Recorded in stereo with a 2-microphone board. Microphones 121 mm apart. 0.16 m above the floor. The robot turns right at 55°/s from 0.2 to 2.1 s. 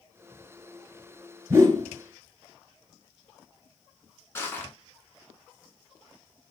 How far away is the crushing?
About 1.4 m.